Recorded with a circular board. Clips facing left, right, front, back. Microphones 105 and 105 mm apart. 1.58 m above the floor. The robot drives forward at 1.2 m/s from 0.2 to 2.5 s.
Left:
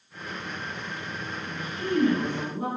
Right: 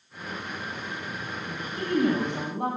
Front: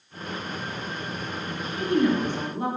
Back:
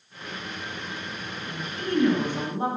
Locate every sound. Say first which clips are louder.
1.4 s a woman speaking: even, front 3 dB; 45° right, 1.1 m; by 2.7 s 120° right, 0.9 m